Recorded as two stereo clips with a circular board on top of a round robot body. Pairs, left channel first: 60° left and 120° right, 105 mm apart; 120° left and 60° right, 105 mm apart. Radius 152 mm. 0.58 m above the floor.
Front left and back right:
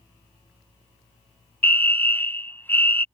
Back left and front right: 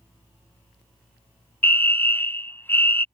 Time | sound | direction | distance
1.6 | a fire alarm | 95° left | ?